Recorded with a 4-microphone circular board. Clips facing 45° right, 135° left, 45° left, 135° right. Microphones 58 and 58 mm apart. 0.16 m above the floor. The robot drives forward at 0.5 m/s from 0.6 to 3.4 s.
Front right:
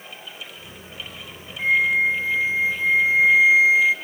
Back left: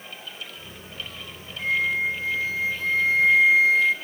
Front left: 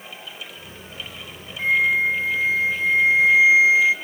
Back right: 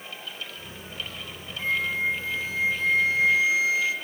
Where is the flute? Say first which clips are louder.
Front right 5 dB, front left 7 dB; 10° left, 1.6 m; by 4.0 s 25° left, 1.0 m.